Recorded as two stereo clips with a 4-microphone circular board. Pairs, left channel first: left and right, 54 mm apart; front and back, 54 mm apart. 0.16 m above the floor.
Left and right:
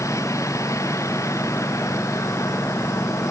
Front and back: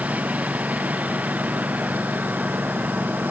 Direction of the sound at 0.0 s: 115° left.